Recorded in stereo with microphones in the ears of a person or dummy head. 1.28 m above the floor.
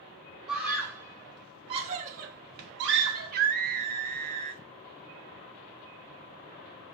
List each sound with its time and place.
0.5 s a scream: 5° right (ahead or behind), 1.3 m; by 3.3 s 75° right (ahead or behind), 1.2 m
3.1 s a scream: 55° right (ahead or behind), 0.8 m